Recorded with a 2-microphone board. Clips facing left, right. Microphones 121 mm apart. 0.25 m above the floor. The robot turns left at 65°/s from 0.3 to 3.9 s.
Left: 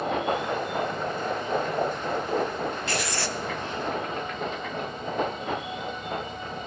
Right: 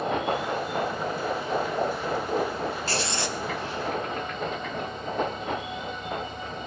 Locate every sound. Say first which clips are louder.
2.9 s writing: even; 130° right, 0.9 m; by 3.4 s 165° right, 0.9 m